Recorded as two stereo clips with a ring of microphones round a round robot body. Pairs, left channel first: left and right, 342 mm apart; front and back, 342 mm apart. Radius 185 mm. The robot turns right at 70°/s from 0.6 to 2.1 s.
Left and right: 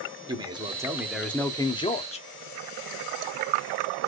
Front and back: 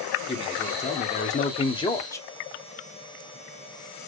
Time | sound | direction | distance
0.3 | a man speaking | 40° right | 1.3 m